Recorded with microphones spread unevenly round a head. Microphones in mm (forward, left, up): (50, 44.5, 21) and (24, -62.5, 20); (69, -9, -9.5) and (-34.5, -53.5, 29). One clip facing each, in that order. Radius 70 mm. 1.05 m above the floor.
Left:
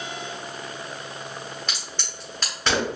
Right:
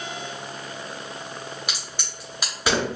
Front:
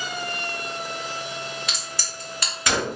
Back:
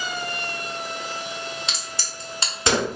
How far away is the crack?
About 0.6 m.